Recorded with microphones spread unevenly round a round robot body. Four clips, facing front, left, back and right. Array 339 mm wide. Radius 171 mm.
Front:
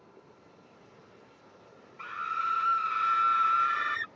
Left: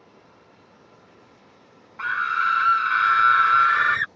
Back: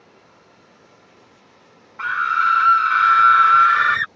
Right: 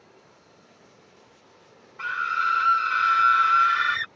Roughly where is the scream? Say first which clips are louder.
Left 2 dB, back 14 dB; behind left.